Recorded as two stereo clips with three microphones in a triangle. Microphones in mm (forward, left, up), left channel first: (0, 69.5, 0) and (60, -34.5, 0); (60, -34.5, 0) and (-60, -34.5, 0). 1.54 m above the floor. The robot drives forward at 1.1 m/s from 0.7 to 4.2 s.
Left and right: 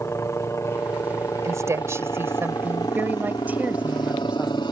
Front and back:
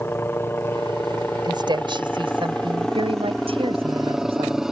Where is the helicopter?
65° left; by 4.7 s 95° left.